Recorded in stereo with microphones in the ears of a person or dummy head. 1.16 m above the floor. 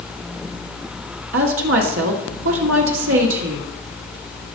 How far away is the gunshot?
I don't hear a gunshot.